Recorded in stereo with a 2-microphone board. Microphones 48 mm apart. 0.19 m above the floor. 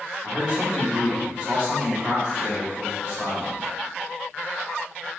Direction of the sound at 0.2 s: 25° right (ahead or behind).